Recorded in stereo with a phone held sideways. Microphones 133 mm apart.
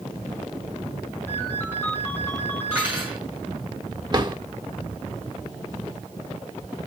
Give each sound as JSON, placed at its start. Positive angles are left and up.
{"t": 1.3, "sound": "a ringtone", "side_deg": 15, "distance_m": 3.0}
{"t": 2.7, "sound": "cutlery clinking", "side_deg": -10, "distance_m": 6.5}
{"t": 4.1, "sound": "a drawer", "side_deg": -30, "distance_m": 1.2}